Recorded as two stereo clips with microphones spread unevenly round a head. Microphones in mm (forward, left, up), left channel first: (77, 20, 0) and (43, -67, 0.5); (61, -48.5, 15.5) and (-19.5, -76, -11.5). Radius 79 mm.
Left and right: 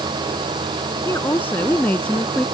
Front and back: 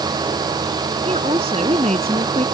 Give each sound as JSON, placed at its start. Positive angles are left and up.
{"t": 1.1, "sound": "a woman speaking", "azimuth_deg": 145}